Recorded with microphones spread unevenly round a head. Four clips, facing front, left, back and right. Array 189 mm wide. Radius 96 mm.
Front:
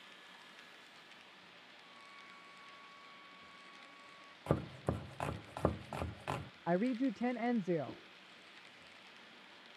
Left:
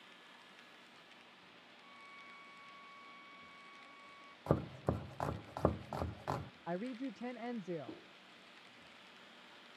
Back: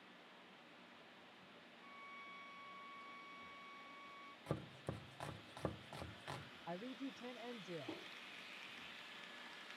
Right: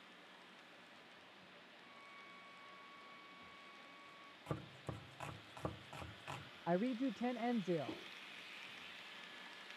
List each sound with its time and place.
1.8 s a violin: 125° left
4.5 s chopping: 55° left
6.7 s a woman speaking: 20° right